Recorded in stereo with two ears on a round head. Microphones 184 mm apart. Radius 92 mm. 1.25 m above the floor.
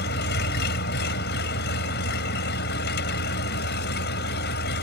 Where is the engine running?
55° left (ahead or behind).